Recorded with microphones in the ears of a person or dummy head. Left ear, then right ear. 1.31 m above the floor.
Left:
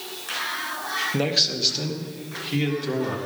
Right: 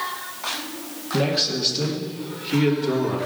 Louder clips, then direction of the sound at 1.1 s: Right 3 dB; 40° left (ahead or behind).